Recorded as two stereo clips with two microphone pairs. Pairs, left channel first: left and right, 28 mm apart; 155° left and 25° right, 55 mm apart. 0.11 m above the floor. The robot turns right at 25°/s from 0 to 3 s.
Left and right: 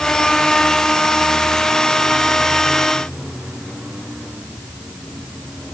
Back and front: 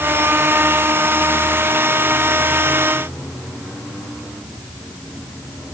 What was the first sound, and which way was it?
Only background noise.